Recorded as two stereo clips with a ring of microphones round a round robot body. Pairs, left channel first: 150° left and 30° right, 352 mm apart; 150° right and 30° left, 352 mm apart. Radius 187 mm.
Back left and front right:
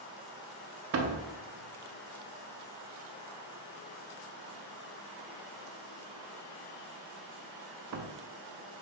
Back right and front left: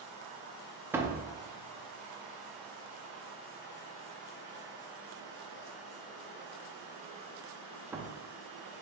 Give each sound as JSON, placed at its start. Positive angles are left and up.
{"t": 0.9, "sound": "a door slam", "azimuth_deg": -50, "distance_m": 0.6}